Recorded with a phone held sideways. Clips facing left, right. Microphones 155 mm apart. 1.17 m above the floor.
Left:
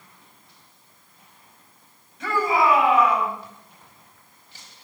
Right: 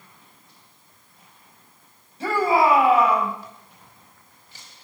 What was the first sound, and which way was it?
A shout, 30° right (ahead or behind).